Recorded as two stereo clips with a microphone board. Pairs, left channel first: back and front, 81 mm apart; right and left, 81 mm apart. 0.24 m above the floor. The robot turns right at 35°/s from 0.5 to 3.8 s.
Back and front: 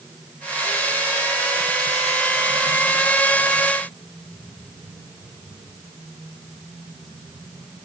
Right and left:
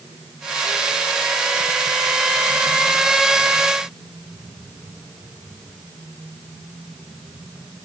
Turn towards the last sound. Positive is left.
No sound to turn to.